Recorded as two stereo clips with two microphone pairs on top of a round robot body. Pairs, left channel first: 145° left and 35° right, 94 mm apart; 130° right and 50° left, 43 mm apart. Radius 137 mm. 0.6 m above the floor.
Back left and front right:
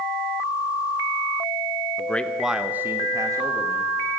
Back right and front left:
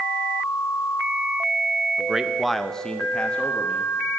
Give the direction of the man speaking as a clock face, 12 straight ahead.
8 o'clock.